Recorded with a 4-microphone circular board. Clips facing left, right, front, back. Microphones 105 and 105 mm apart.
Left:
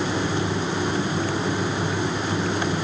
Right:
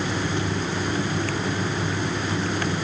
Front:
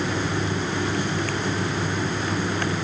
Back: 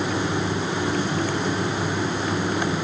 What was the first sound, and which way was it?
Only background noise.